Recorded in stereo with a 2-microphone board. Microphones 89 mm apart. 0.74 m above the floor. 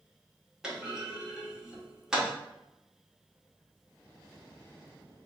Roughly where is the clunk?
Centre.